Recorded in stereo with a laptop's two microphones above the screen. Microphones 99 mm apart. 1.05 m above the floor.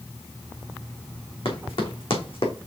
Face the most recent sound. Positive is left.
turn(degrees=70)  # may be behind; listen again after turning